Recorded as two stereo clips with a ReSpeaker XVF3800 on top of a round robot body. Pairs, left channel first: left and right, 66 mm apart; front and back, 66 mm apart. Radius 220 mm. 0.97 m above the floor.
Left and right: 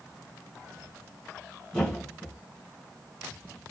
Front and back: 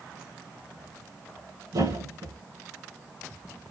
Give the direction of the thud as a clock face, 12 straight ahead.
6 o'clock.